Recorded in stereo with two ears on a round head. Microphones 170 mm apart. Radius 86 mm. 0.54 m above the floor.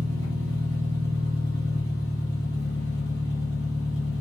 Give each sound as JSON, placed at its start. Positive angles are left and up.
{"t": 0.0, "sound": "an engine running", "side_deg": -75, "distance_m": 1.8}